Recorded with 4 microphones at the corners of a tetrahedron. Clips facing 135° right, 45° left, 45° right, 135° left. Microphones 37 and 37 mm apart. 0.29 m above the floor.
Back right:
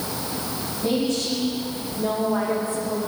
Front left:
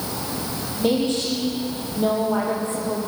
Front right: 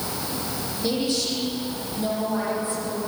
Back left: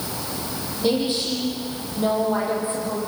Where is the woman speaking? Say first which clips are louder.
Front left 2 dB, back left 3 dB; 65° left, 10 m; by 3.0 s 75° left, 9 m.